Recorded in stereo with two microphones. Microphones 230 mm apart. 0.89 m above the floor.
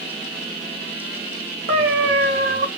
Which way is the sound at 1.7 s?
45° right (ahead or behind).